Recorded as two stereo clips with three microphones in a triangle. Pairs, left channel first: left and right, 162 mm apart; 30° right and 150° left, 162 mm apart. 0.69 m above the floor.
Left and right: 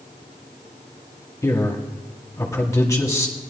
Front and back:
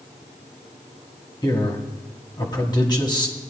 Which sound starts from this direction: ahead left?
A man speaking, at 1.4 s.